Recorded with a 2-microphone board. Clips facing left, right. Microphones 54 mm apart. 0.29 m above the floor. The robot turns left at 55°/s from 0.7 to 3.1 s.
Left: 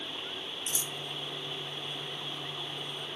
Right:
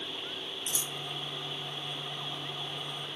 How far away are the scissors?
About 0.5 m.